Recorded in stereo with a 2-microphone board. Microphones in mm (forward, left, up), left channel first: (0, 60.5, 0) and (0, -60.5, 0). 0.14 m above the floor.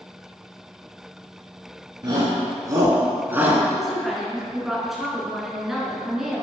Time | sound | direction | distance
2.0 | a shout | 35° right (ahead or behind) | 1.4 m
3.7 | a woman speaking | centre (ahead or behind) | 1.4 m